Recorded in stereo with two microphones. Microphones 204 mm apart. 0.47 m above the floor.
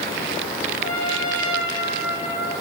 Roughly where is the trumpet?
Left.